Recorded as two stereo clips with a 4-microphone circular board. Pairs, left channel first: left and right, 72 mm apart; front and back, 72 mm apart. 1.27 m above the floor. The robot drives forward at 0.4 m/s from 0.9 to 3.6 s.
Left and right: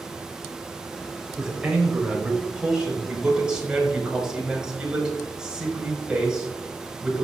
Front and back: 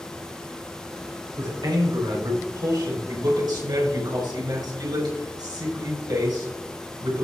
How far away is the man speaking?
About 4 m.